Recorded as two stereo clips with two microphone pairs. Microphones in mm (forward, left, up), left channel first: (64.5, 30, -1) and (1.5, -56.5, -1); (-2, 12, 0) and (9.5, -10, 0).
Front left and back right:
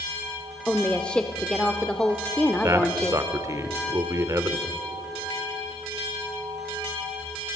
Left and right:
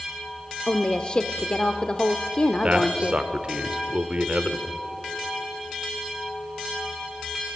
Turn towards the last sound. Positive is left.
turn(degrees=-75)